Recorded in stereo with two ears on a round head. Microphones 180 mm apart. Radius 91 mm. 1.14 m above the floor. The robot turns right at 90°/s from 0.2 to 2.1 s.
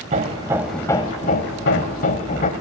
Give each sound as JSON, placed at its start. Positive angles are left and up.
{"t": 0.1, "sound": "hammering", "azimuth_deg": -45, "distance_m": 1.4}